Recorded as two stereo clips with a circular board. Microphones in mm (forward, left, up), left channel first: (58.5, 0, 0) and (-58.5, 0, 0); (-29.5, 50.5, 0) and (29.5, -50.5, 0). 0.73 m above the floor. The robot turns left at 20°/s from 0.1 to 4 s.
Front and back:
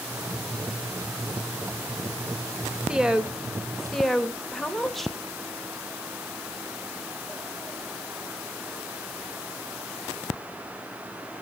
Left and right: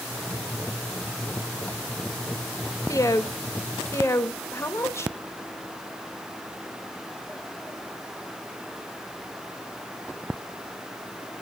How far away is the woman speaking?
About 1.0 m.